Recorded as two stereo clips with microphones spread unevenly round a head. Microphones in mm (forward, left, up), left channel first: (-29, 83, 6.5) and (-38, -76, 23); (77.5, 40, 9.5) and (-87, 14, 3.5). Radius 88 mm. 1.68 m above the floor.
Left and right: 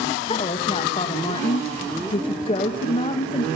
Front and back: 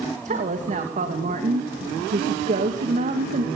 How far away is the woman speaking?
About 2.5 m.